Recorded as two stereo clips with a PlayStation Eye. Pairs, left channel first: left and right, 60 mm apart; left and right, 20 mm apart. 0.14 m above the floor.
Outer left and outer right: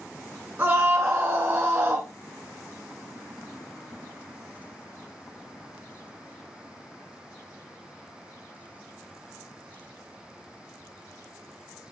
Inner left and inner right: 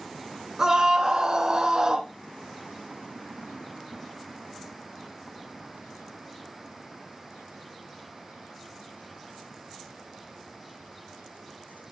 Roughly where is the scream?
Right.